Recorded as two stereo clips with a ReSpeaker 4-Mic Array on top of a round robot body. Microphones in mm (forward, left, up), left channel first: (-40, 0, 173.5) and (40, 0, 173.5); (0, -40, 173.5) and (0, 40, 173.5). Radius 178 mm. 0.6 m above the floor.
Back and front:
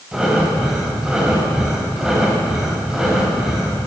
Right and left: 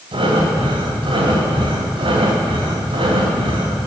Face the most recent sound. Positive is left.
turn(degrees=85)